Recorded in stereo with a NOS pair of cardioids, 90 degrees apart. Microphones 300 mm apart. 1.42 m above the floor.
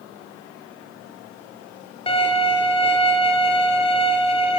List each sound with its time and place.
2.1 s a violin: 20° left, 4 m